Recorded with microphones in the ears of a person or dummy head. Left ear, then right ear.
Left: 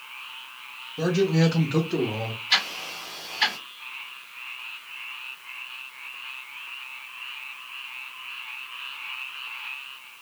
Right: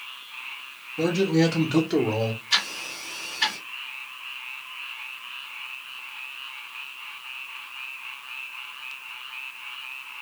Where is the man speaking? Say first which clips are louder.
Right 1 dB; 45° left (ahead or behind), 0.9 m; by 2.4 s 60° right (ahead or behind), 0.9 m.